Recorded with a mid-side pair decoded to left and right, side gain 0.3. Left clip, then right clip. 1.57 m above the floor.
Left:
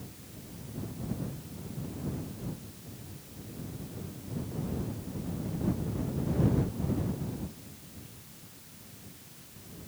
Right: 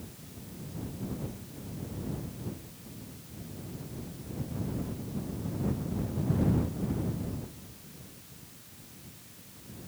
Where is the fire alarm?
No fire alarm in this recording.